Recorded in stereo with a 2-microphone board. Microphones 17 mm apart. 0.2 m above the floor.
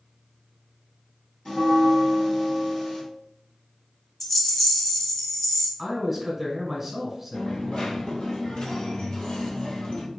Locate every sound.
1.4 s a bell: 45° left (ahead or behind), 2.0 m
4.2 s a rattle: 15° left (ahead or behind), 0.8 m
5.8 s a man speaking: 15° right (ahead or behind), 1.4 m
7.3 s a dropped coin: 60° left (ahead or behind), 1.4 m